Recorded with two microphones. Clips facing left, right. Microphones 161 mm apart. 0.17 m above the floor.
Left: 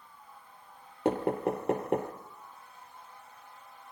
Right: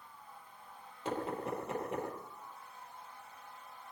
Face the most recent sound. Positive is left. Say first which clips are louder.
# left 9 dB
turn(degrees=65)  # may be behind; listen again after turning